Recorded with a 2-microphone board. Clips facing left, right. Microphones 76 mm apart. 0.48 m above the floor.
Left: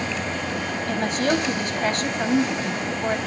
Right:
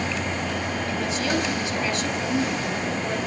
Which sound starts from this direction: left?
A woman speaking, at 0.9 s.